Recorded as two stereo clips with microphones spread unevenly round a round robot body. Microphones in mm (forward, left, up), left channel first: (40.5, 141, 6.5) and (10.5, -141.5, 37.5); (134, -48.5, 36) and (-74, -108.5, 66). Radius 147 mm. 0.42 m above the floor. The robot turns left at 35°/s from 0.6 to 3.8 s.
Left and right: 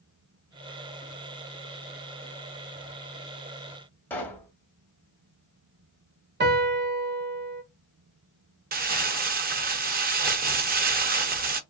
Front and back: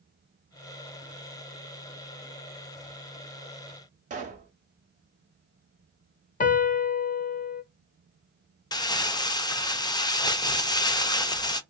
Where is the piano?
40° right, 0.7 m.